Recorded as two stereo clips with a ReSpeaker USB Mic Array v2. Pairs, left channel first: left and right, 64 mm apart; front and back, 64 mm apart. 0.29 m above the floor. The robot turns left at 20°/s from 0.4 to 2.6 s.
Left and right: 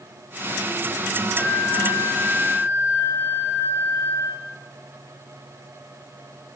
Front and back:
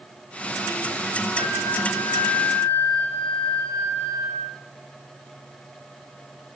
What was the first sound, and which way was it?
A flute, 170° left.